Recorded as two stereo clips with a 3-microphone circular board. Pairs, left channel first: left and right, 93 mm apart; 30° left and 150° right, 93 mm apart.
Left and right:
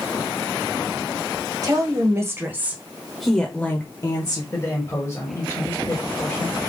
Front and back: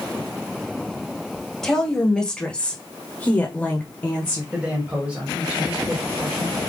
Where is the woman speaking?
50° right, 1.5 m; by 4.4 s 90° left, 1.1 m.